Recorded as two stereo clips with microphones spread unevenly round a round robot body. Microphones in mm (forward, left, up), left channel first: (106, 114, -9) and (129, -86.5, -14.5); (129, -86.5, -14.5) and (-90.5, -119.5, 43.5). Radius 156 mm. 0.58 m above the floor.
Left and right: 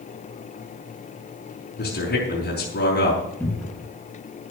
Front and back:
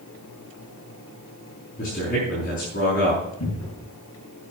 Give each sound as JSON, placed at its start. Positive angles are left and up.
{"t": 1.8, "sound": "a man speaking", "azimuth_deg": 65, "distance_m": 5.0}
{"t": 3.4, "sound": "a cupboard door", "azimuth_deg": 15, "distance_m": 8.0}